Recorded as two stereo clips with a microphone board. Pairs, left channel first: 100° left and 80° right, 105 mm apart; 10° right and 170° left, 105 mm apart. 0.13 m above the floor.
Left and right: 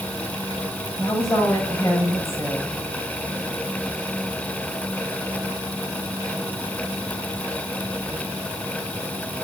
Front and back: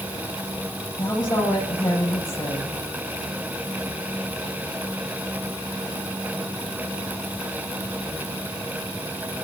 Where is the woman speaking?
40° left, 8 m.